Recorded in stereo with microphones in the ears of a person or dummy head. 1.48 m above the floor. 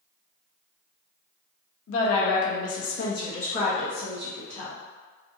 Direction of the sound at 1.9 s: 75° left (ahead or behind).